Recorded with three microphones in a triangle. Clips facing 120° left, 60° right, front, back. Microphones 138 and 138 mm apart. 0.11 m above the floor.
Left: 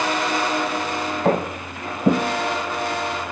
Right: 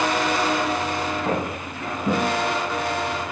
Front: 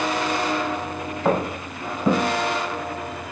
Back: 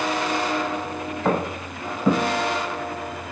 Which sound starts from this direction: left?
Footsteps, at 1.2 s.